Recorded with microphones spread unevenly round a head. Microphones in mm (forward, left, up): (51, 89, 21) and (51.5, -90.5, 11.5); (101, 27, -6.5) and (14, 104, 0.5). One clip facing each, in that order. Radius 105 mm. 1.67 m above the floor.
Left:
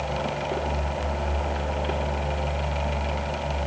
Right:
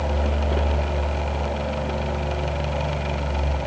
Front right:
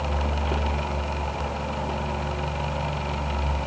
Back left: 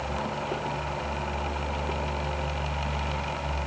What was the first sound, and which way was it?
Only background noise.